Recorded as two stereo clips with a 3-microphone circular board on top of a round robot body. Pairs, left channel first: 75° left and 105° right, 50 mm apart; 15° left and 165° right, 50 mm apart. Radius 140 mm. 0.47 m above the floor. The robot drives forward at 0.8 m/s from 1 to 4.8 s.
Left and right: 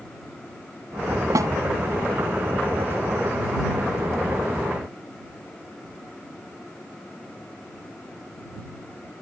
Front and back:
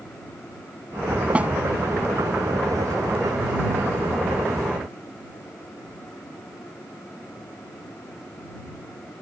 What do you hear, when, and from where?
1.4 s a snare drum: 95° right; by 1.5 s 100° right